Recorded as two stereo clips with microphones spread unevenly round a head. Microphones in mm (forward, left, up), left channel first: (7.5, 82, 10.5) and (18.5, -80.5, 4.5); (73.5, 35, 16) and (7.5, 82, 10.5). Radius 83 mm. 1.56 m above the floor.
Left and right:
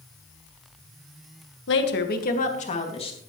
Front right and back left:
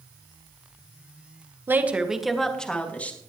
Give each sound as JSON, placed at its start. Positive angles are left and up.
{"t": 1.7, "sound": "a woman speaking", "azimuth_deg": 80, "distance_m": 1.6}